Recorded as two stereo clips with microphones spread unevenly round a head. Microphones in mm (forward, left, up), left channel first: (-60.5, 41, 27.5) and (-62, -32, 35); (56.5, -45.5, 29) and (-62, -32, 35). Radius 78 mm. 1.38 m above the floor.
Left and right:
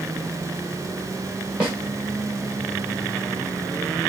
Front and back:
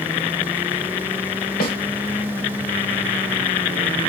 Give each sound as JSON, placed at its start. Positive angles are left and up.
{"t": 1.6, "sound": "a snare drum", "azimuth_deg": -10, "distance_m": 1.7}